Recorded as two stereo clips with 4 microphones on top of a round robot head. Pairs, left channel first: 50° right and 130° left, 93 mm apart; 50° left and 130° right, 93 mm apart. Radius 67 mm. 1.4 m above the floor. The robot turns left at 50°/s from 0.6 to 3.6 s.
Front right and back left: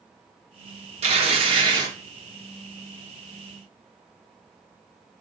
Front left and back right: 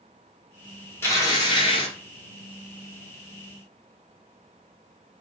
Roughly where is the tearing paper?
Behind left.